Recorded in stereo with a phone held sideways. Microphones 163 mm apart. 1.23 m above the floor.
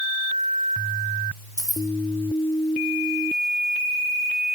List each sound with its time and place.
1.6 s keys jangling: 20° left (ahead or behind), 1.3 m